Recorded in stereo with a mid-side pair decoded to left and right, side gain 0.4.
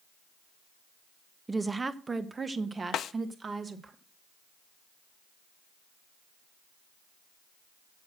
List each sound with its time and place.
1.5 s a woman speaking: 20° right, 0.8 m; by 3.9 s 40° right, 2 m
2.9 s a snare drum: 70° left, 0.6 m